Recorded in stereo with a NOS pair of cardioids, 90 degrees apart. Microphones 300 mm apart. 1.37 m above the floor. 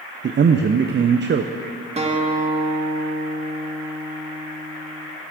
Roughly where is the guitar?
Ahead.